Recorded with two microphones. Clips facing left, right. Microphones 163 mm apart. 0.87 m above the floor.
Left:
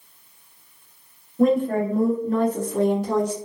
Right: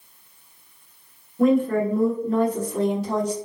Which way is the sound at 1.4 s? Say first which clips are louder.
Even; 30° left (ahead or behind).